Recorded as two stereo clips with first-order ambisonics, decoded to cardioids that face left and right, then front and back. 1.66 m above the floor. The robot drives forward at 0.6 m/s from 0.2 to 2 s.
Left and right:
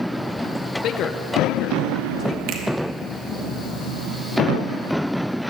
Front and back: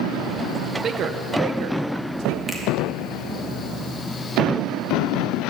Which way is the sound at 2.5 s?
100° right.